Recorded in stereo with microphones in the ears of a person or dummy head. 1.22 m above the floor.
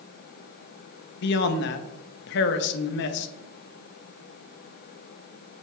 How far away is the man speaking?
About 0.7 m.